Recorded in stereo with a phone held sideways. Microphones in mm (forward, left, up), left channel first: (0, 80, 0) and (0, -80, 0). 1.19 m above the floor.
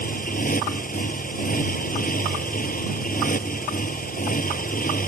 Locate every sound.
0.0 s a motorcycle: 60° left (ahead or behind)